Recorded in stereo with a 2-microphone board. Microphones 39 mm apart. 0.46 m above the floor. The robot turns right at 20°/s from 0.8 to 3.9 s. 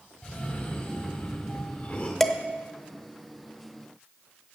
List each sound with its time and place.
0.2 s a cough: 30° left (ahead or behind), 1.5 m; by 2.1 s 40° left (ahead or behind), 1.5 m
2.2 s dishes clattering: 10° left (ahead or behind), 0.8 m